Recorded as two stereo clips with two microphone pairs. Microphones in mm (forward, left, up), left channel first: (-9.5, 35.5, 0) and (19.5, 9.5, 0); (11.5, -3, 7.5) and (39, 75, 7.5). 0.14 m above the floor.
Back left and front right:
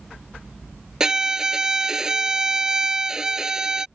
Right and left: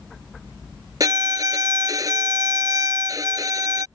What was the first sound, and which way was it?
A violin, 30° left.